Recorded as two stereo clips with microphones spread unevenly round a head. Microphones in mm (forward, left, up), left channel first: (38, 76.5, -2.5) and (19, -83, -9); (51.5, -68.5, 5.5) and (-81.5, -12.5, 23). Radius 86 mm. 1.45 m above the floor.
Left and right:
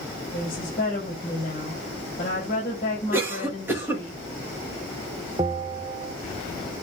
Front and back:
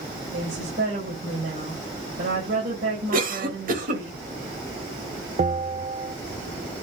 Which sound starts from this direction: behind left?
A woman speaking, at 0.3 s.